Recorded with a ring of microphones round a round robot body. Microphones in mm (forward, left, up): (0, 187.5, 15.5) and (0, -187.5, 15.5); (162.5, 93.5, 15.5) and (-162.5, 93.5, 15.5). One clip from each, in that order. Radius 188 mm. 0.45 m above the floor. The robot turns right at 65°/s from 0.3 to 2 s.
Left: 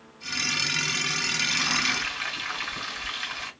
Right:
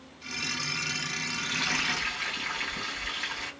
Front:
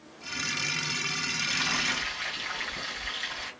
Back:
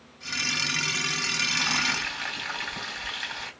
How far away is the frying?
About 2.5 m.